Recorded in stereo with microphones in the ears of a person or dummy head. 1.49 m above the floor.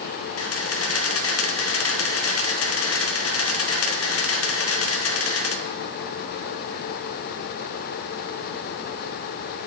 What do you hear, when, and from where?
0.4 s a camera shutter: 80° left, 1.4 m